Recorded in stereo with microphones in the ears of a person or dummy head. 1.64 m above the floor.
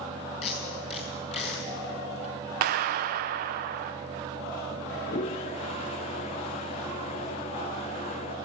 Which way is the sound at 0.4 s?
35° left (ahead or behind).